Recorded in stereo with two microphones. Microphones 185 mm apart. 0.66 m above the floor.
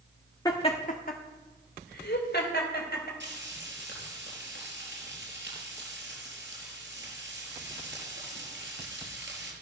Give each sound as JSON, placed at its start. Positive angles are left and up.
{"t": 0.5, "sound": "laughter", "side_deg": 20, "distance_m": 1.3}
{"t": 3.2, "sound": "frying", "side_deg": -85, "distance_m": 5.0}